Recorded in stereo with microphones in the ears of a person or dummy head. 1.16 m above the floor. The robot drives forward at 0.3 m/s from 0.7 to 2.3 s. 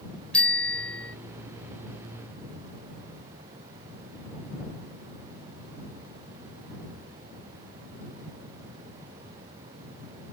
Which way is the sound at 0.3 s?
5° left (ahead or behind).